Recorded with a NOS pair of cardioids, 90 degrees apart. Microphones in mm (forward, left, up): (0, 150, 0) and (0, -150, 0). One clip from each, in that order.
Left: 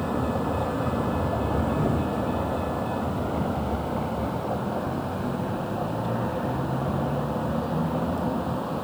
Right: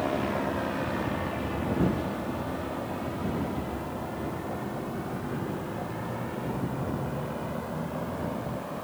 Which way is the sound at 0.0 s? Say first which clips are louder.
Left 1 dB; 60° left.